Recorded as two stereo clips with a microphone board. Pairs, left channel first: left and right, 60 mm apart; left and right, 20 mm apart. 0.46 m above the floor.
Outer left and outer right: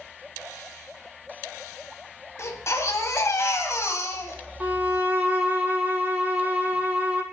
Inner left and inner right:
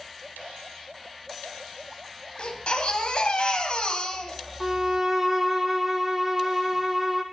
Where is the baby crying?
50° left (ahead or behind), 1.2 m.